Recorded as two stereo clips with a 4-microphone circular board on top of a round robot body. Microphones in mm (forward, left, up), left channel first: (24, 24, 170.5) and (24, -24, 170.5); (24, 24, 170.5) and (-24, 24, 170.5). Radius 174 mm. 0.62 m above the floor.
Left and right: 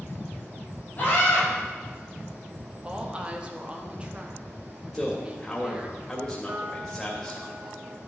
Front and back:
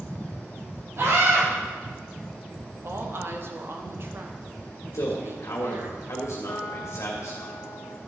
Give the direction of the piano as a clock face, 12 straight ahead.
1 o'clock.